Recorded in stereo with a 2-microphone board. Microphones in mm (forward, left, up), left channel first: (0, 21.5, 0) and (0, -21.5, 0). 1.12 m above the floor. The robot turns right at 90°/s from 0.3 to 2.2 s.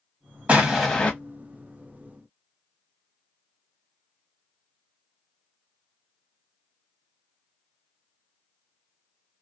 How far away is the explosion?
About 1.0 m.